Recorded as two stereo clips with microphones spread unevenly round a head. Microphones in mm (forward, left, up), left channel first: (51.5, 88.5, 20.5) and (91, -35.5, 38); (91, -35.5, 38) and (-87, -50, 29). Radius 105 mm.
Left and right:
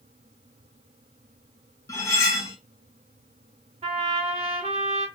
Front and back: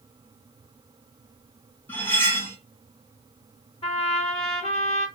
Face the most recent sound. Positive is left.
turn(degrees=-45)